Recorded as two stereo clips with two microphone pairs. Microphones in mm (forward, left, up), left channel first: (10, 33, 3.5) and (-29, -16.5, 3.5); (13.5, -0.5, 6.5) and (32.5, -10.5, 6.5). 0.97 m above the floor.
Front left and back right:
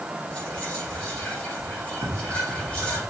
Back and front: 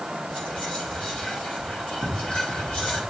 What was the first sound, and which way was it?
Whispering, 125° left.